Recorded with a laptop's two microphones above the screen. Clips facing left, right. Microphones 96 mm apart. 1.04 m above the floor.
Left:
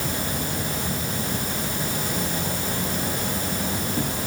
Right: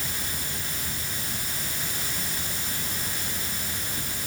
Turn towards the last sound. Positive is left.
turn(degrees=50)  # may be behind; listen again after turning